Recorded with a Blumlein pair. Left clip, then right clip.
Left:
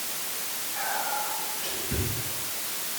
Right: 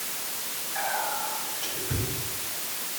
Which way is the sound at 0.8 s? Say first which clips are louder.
Right 1 dB; 55° right.